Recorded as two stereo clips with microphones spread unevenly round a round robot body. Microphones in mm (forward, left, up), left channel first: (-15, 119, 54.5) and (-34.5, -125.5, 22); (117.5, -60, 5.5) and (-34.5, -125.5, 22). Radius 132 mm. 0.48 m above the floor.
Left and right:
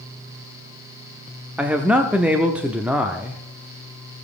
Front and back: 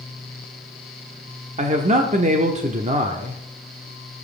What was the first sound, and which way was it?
A man speaking, 165° right.